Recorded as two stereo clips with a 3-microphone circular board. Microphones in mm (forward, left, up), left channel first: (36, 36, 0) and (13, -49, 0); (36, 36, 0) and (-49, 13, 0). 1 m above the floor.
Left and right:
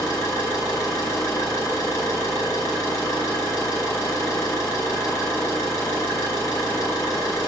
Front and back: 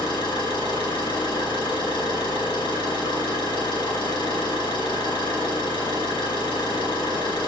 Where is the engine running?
25° left, 4.5 m.